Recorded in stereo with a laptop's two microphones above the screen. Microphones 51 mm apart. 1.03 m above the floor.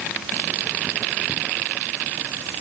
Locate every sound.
Only background noise.